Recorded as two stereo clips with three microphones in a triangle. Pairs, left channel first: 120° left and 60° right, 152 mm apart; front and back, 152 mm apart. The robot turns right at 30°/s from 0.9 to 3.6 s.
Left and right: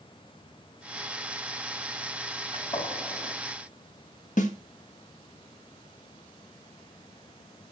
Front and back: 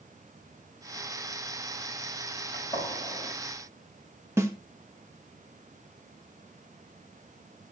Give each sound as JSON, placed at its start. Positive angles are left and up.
{"t": 2.5, "sound": "a gunshot", "azimuth_deg": 60, "distance_m": 6.5}
{"t": 4.4, "sound": "a snare drum", "azimuth_deg": 110, "distance_m": 1.2}